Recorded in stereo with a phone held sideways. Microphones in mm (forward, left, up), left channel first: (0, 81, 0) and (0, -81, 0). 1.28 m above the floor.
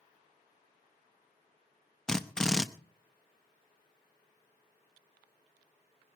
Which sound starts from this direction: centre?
A drill, at 2.1 s.